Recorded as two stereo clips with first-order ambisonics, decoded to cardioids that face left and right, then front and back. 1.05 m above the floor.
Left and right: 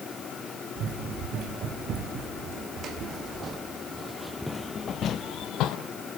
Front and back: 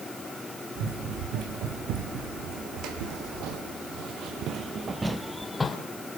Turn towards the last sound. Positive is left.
turn(degrees=70)